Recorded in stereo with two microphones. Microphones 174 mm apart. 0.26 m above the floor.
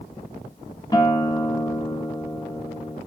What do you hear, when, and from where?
0.9 s a guitar: 25° left (ahead or behind), 0.7 m